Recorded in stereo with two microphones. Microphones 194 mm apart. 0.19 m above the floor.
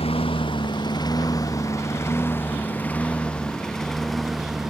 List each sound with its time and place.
0.0 s a lawn mower: 30° left (ahead or behind); by 4.7 s centre (ahead or behind)